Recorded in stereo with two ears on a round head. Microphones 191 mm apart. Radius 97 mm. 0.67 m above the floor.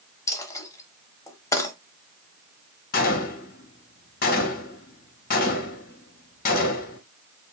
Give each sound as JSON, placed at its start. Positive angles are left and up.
{"t": 0.3, "sound": "a dropped coin", "side_deg": 15, "distance_m": 1.0}
{"t": 2.9, "sound": "a gunshot", "side_deg": 40, "distance_m": 0.9}